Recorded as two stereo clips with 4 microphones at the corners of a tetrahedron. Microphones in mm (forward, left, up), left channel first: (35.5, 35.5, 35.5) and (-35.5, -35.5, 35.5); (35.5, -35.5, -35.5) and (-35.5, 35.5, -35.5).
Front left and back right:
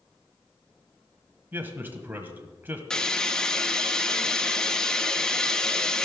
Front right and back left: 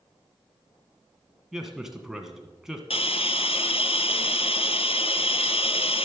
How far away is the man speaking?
About 1.4 m.